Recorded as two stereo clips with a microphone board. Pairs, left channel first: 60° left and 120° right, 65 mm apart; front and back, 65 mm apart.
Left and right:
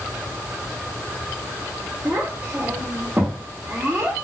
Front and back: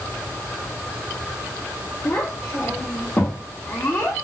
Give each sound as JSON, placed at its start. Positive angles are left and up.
{"t": 2.0, "sound": "a child speaking", "azimuth_deg": -55, "distance_m": 1.8}